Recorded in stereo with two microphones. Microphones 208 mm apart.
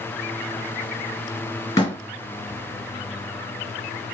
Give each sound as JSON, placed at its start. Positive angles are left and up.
{"t": 1.8, "sound": "a door slam", "side_deg": 20, "distance_m": 1.8}